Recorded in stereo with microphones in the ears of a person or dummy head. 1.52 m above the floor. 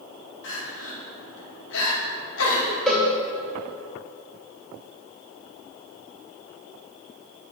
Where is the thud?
No thud in this recording.